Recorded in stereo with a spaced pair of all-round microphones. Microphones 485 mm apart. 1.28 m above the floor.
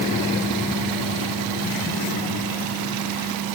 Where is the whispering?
I don't hear whispering.